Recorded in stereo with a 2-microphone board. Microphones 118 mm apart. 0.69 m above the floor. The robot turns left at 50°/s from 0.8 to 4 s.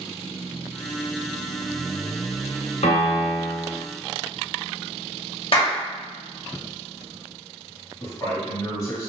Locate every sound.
2.8 s a piano: 85° left, 1.0 m; by 3.7 s 40° left, 1.0 m
5.5 s a clap: 50° left (ahead or behind), 0.9 m
8.0 s a man speaking: 35° left (ahead or behind), 1.7 m